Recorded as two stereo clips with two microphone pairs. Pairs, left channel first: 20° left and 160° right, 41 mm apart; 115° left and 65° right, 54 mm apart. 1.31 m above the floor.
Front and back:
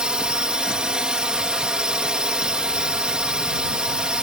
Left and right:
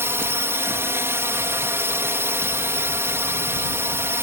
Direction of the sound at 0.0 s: 95° right.